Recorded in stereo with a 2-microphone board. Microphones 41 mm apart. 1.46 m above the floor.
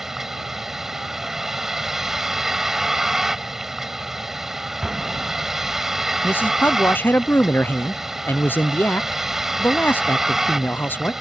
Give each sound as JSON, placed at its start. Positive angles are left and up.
{"t": 0.0, "sound": "a vehicle", "side_deg": -10}
{"t": 4.8, "sound": "an explosion", "side_deg": -15}
{"t": 6.2, "sound": "a man speaking", "side_deg": 55}